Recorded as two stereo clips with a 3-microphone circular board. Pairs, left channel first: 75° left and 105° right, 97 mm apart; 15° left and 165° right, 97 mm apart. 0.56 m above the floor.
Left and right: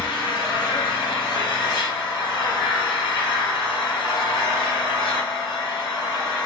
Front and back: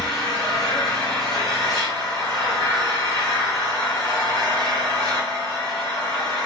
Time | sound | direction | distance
0.0 | an engine running | 100° left | 1.7 m